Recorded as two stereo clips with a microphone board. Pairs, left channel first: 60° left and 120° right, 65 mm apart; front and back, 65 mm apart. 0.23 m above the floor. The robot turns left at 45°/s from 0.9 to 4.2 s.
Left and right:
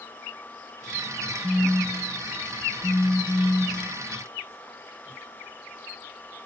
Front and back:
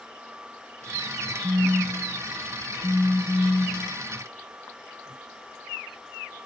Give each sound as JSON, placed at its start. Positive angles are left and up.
{"t": 1.4, "sound": "a phone buzzing", "azimuth_deg": 130}